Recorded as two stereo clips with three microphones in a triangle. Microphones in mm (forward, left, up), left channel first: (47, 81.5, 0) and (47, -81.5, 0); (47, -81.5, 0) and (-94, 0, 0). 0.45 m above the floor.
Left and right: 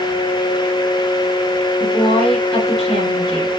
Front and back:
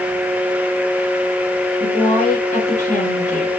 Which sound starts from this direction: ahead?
A woman speaking, at 1.8 s.